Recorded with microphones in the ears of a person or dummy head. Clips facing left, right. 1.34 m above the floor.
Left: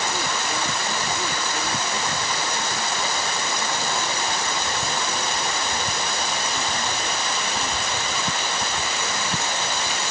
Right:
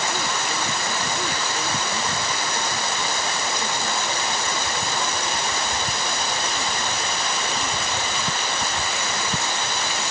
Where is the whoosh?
No whoosh in this recording.